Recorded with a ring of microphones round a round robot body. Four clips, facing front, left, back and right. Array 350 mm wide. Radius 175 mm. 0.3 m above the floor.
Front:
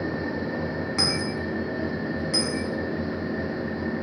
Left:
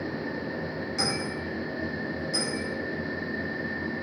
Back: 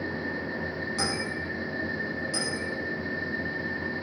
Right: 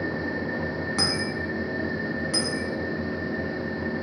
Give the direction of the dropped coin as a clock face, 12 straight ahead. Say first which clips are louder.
Right 1 dB, front 2 dB; 2 o'clock.